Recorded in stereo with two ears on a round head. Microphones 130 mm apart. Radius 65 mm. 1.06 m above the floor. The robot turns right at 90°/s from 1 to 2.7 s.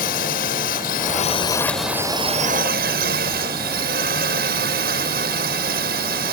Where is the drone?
110° left; by 6.3 s 100° right.